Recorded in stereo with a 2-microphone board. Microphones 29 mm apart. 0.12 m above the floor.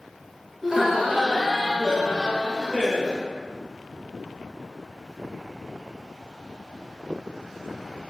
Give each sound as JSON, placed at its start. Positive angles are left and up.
{"t": 0.6, "sound": "laughter", "side_deg": -20, "distance_m": 1.6}